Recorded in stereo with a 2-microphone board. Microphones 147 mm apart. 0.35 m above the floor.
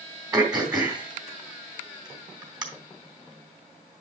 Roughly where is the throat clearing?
Right.